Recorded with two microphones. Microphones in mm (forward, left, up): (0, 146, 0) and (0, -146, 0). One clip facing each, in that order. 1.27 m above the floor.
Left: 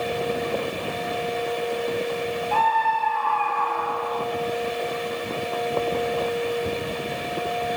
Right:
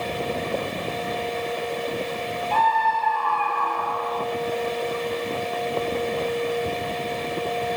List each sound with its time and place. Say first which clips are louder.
2.5 s a scream: even; 50° right (ahead or behind), 7.5 m